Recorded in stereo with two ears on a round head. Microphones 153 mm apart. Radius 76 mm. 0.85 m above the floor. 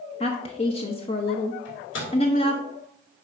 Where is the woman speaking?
35° left (ahead or behind), 0.9 m.